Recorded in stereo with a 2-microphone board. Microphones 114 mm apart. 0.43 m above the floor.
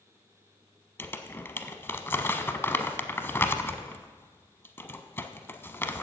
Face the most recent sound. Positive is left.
turn(degrees=20)  # may be behind; listen again after turning